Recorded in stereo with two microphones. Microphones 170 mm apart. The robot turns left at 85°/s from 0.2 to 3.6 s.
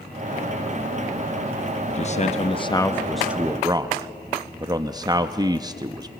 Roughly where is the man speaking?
Left.